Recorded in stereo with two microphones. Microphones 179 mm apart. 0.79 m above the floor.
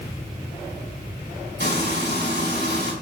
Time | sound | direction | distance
1.6 | frying | 80° left | 5.5 m